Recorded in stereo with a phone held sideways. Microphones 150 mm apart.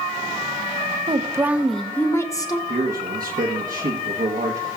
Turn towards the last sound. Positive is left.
turn(degrees=-70)  # may be behind; listen again after turning